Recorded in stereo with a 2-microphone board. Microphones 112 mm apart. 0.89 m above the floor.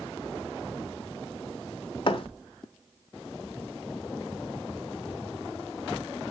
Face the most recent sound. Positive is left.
turn(degrees=50)  # may be behind; listen again after turning